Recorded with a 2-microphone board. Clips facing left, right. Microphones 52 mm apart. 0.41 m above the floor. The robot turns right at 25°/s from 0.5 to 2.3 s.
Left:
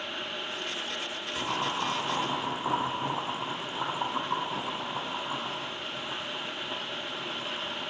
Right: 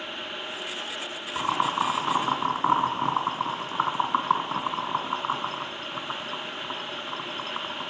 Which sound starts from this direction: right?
Boiling, at 1.4 s.